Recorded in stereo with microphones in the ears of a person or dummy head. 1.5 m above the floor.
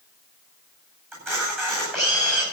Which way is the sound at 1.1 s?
15° right (ahead or behind).